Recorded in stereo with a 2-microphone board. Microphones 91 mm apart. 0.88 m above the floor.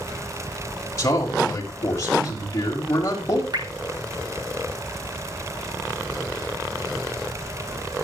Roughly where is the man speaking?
Left.